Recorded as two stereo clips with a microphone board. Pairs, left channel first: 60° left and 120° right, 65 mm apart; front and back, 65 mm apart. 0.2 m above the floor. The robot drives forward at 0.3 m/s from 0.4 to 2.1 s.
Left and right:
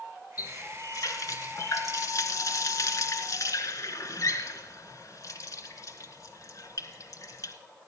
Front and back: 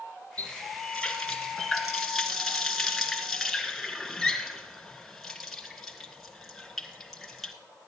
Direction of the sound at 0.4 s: 75° left.